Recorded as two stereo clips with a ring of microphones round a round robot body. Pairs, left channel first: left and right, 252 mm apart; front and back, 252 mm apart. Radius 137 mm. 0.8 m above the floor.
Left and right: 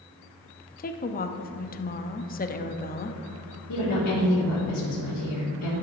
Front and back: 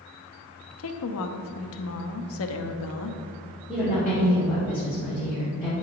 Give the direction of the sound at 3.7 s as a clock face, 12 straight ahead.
9 o'clock.